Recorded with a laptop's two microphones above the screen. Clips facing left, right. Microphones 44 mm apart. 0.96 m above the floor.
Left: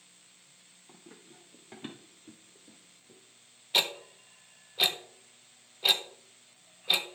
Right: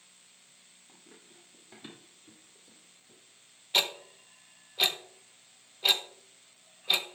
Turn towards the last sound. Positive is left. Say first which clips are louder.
# even
turn(degrees=5)  # may be behind; listen again after turning